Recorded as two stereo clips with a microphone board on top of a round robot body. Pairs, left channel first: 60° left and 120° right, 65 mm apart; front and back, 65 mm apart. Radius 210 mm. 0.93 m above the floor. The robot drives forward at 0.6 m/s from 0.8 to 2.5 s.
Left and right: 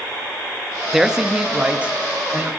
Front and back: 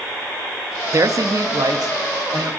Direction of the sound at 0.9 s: 150° left.